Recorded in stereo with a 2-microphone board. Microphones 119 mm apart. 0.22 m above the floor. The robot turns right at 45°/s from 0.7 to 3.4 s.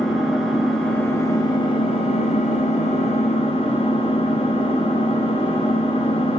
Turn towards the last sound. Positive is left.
turn(degrees=125)